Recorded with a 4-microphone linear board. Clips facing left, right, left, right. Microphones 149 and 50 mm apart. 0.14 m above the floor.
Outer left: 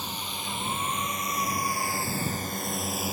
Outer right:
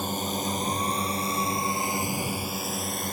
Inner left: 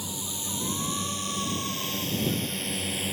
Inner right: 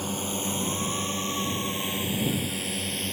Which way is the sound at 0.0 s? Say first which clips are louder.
Outer right 8 dB, inner right 6 dB; 50° right (ahead or behind).